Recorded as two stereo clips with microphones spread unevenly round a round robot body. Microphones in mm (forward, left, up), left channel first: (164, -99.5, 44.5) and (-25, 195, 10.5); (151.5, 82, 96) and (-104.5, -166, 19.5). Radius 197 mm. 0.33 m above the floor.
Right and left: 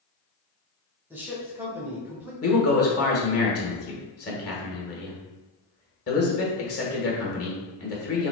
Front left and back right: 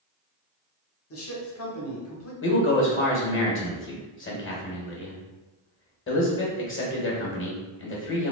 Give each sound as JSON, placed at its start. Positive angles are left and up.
{"t": 1.1, "sound": "a man speaking", "azimuth_deg": 60, "distance_m": 1.1}
{"t": 2.4, "sound": "a man speaking", "azimuth_deg": -15, "distance_m": 1.5}